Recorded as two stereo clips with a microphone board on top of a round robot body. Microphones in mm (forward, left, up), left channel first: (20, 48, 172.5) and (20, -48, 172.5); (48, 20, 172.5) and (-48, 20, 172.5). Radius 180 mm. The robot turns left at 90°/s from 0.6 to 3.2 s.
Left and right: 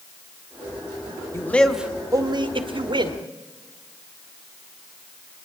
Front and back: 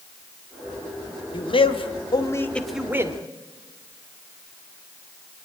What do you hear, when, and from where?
1.3 s a man speaking: 35° left, 1.8 m; by 3.2 s 130° right, 1.8 m